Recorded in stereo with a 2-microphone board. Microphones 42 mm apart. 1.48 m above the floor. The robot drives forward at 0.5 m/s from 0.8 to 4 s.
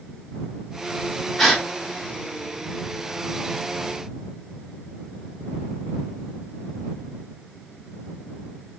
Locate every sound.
1.4 s a gasp: 5° left (ahead or behind), 0.9 m